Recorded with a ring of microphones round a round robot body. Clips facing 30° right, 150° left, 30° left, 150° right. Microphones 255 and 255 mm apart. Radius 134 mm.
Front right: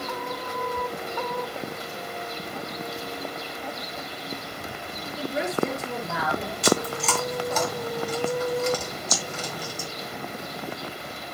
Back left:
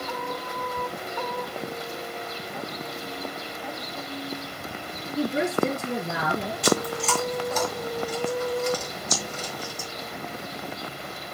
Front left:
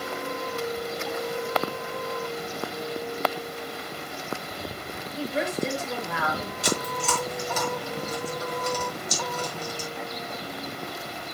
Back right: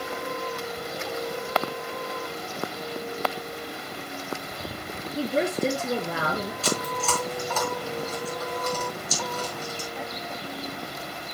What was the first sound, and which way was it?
A woman speaking, 155° left.